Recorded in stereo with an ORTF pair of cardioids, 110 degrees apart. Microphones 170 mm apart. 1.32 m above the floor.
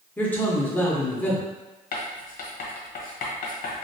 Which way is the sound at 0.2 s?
10° left.